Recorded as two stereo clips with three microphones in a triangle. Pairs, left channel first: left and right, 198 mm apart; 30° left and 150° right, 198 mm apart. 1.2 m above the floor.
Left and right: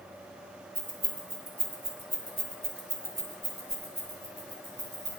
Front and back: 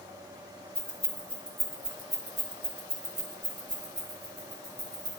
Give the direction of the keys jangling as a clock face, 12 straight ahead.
1 o'clock.